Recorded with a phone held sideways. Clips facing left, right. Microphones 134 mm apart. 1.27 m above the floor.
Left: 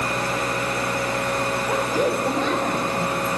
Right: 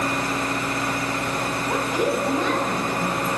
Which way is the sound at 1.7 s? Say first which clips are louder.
Even; 30° left (ahead or behind).